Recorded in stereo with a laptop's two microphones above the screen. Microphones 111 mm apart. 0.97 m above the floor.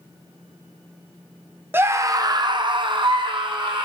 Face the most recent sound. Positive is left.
turn(degrees=-45)  # may be behind; listen again after turning